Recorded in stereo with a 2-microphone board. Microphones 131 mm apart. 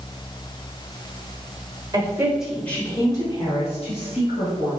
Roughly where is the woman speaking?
Right.